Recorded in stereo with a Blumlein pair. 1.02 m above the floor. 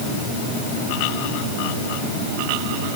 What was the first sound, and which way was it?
Only background noise.